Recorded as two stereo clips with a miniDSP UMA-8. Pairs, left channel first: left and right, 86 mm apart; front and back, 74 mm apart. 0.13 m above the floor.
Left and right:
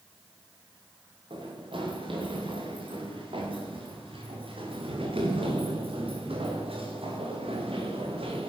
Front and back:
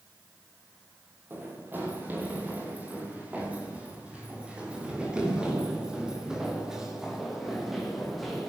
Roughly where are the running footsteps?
Behind right.